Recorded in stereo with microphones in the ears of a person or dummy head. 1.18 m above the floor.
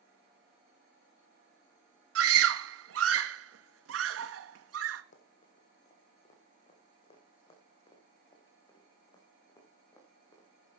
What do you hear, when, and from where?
2.1 s a scream: 80° right, 1.6 m
5.1 s running footsteps: 45° left (ahead or behind), 2.5 m; by 10.5 s 15° left (ahead or behind), 5 m